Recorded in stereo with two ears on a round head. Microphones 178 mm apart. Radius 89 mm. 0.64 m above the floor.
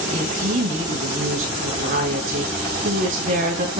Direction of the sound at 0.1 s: 45° right (ahead or behind).